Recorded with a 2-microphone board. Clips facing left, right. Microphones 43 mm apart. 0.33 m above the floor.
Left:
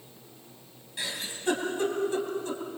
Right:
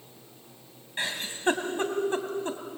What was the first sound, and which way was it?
A giggle, 45° right (ahead or behind).